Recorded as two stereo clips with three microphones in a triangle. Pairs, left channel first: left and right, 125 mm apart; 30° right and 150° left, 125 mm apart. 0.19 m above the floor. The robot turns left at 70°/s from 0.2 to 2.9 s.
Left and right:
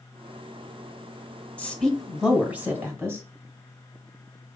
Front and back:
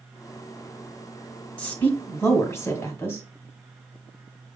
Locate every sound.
1.6 s a woman speaking: 35° left, 1.3 m; by 3.2 s 60° right, 1.3 m